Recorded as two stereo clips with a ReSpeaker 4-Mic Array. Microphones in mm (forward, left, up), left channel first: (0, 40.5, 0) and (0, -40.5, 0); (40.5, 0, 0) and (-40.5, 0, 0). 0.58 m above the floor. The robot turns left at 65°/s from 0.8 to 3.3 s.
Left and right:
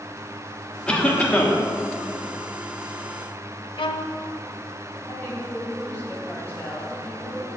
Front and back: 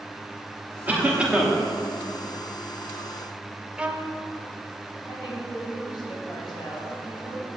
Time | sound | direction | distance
0.9 | a cough | 155° left | 1.2 m
3.8 | a violin | 105° left | 0.7 m
5.1 | a woman speaking | 25° left | 3.5 m